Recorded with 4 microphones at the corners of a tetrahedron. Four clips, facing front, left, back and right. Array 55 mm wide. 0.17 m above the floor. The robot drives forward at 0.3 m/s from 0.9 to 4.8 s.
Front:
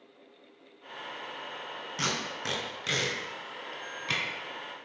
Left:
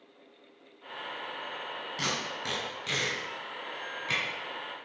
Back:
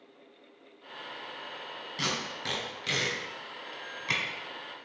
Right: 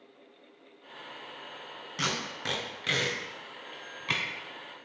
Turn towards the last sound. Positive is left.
turn(degrees=-125)